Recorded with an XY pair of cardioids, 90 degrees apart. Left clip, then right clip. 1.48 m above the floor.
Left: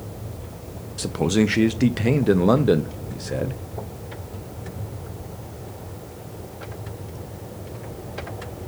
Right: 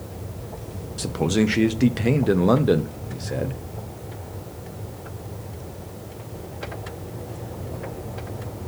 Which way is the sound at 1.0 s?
10° left.